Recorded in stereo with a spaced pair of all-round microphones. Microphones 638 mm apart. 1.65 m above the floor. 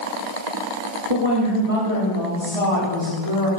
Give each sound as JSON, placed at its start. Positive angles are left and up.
{"t": 1.1, "sound": "a woman speaking", "side_deg": -55, "distance_m": 3.5}